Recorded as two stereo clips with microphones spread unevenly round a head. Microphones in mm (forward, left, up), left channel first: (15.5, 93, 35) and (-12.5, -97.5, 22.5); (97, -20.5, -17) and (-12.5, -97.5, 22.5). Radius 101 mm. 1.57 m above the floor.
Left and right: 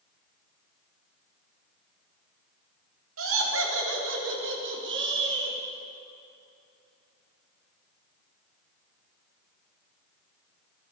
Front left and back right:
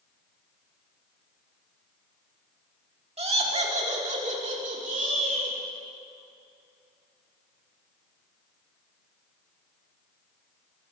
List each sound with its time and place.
3.2 s laughter: 105° right, 4.5 m; by 5.6 s 125° right, 6.5 m